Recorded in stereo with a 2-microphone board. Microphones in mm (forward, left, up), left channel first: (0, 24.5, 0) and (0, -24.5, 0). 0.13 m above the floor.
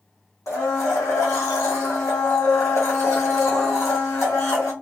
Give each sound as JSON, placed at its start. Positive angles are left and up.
{"t": 0.5, "sound": "a blender", "side_deg": 80, "distance_m": 1.8}